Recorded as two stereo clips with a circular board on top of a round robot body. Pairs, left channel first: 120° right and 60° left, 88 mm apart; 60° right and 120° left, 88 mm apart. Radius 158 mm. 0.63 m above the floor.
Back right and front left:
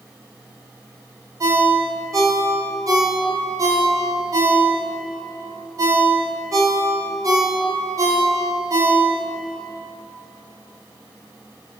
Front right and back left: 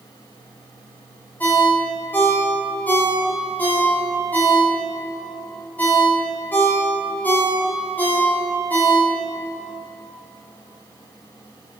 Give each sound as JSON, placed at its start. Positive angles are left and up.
{"t": 1.4, "sound": "a ringtone", "azimuth_deg": 10, "distance_m": 1.7}